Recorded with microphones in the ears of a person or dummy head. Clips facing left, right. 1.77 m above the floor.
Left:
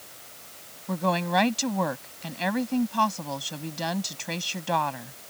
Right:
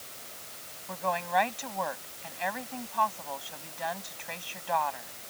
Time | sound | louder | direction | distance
0.9 | a woman speaking | left 5 dB | 60° left (ahead or behind) | ?